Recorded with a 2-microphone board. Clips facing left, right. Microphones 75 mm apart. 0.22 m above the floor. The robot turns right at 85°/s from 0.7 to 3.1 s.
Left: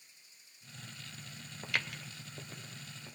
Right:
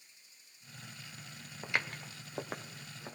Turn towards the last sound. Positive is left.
turn(degrees=-40)  # may be behind; listen again after turning